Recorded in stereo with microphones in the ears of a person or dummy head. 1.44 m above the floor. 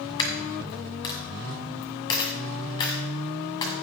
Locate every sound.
0.2 s a dropped coin: 20° left (ahead or behind), 1.6 m